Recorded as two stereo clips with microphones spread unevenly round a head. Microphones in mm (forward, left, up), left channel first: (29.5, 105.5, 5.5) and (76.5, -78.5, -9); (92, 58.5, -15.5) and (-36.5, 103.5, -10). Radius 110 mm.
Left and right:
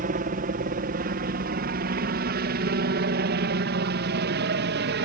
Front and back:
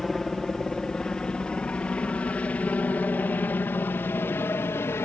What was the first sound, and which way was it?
A helicopter, 105° right.